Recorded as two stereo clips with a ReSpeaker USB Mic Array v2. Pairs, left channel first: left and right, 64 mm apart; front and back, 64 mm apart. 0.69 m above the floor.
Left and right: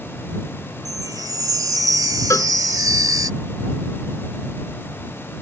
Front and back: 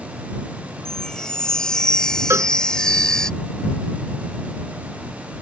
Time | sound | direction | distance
0.8 | a chime | 80° right | ?
2.3 | a cowbell | 135° left | ?